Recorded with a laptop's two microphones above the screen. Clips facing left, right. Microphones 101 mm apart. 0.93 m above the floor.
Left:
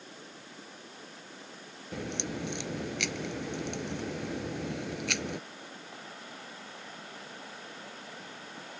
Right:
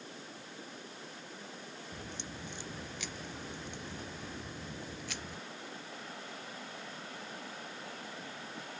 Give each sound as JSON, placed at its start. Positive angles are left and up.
{"t": 1.9, "sound": "a crack", "side_deg": 80}